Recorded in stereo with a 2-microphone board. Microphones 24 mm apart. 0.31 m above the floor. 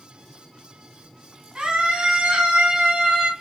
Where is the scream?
35° right (ahead or behind), 2.5 m; by 3.3 s 40° right (ahead or behind), 1.8 m.